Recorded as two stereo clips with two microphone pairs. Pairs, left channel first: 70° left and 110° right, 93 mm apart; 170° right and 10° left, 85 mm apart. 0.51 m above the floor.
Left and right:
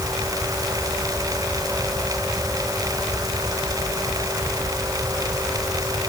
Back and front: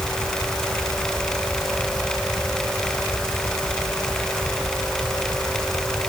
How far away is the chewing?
I don't hear chewing.